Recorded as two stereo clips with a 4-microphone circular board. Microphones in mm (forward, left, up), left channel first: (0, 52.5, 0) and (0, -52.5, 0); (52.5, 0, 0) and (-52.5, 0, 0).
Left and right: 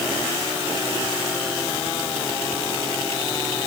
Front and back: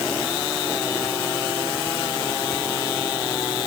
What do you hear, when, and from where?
Only background noise.